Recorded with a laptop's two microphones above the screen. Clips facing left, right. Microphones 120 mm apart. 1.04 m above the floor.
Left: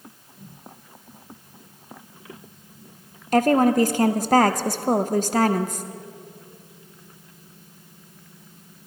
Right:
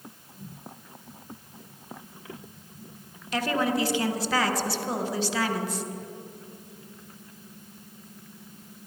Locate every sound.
3.3 s a woman speaking: 45° left (ahead or behind), 0.6 m